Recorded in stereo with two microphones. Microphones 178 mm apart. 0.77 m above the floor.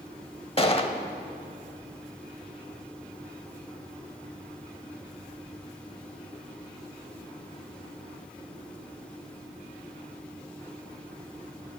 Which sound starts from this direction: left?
A gunshot, at 0.6 s.